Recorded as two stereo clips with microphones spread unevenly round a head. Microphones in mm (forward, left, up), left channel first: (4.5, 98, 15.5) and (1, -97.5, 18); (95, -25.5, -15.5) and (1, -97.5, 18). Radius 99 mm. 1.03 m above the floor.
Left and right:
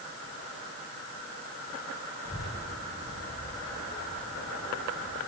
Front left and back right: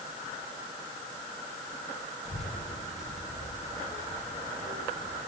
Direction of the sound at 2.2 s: 15° left.